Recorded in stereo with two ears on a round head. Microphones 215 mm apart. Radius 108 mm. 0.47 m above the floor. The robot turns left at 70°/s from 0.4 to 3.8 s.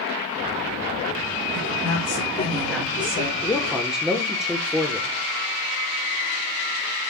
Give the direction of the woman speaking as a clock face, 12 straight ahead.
9 o'clock.